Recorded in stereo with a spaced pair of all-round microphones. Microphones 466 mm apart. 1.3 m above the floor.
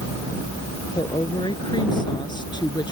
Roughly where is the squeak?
I don't hear a squeak.